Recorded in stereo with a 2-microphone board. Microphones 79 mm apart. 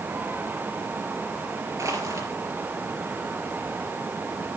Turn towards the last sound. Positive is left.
turn(degrees=-40)  # may be behind; listen again after turning